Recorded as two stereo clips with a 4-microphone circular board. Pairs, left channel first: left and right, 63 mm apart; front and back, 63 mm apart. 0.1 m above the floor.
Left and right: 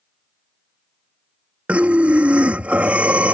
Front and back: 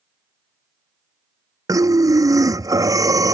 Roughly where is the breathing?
Behind.